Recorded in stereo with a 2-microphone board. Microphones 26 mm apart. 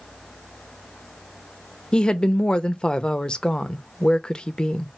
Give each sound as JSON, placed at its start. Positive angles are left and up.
{"t": 1.9, "sound": "a woman speaking", "side_deg": 35, "distance_m": 0.6}